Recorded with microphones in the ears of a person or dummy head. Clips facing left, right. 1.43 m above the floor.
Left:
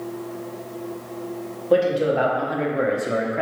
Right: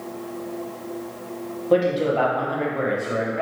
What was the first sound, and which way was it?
A man speaking, 5° left (ahead or behind).